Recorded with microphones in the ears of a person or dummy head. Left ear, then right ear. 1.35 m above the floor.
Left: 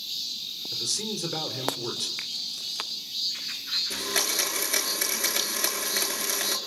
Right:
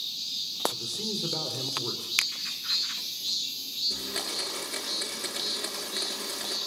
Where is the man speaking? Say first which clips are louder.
Left 3 dB; 30° left (ahead or behind), 3.5 m.